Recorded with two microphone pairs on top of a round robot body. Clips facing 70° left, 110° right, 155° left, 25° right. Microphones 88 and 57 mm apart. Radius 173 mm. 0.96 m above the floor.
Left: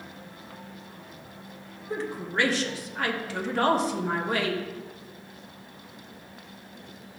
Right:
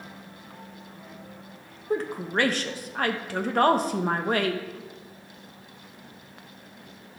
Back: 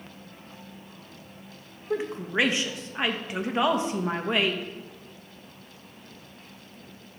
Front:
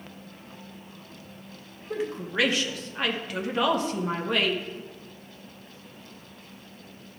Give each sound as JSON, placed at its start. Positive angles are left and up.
{"t": 1.9, "sound": "a woman speaking", "azimuth_deg": -135, "distance_m": 1.2}